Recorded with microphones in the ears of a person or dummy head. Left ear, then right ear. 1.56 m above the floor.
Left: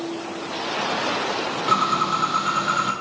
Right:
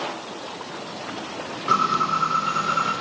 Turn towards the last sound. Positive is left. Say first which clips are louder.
# right 1 dB
turn(degrees=25)  # may be behind; listen again after turning